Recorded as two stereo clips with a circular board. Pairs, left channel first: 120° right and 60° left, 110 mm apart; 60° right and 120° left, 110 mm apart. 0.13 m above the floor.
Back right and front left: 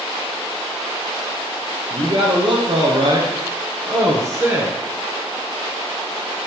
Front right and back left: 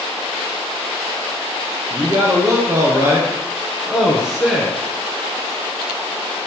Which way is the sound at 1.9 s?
75° left.